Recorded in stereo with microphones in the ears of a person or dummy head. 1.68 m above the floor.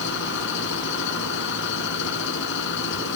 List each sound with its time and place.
0.0 s an engine running: 65° left (ahead or behind)